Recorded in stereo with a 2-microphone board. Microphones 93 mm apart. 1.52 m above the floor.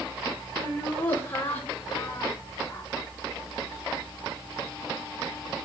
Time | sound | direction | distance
0.6 | laughter | 20° left (ahead or behind) | 6.5 m